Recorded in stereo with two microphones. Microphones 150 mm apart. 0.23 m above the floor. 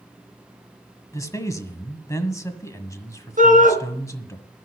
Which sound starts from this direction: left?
A man speaking, at 1.1 s.